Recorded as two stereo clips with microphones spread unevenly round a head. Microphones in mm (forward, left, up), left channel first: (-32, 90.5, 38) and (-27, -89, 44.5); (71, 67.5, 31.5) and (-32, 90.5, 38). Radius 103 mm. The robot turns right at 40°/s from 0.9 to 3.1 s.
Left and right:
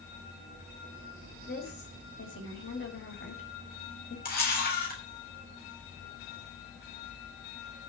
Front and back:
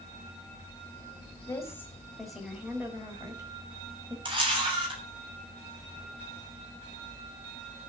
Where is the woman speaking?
45° left, 5 m; by 4.2 s 110° left, 5 m.